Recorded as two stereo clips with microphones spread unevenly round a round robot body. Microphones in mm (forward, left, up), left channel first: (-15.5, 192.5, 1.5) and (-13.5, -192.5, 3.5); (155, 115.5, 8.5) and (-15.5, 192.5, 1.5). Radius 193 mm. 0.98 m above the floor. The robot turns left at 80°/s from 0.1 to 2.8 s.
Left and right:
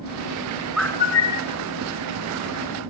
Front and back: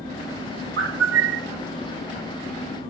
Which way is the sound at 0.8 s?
175° right.